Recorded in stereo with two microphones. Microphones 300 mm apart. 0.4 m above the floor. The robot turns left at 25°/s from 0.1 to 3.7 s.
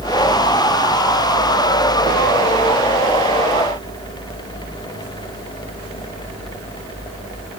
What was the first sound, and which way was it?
Only background noise.